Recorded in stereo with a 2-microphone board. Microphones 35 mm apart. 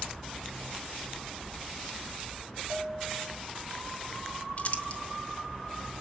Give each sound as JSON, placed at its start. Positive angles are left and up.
{"t": 2.7, "sound": "a bell", "side_deg": -65, "distance_m": 3.0}
{"t": 4.6, "sound": "crumpling", "side_deg": 40, "distance_m": 1.2}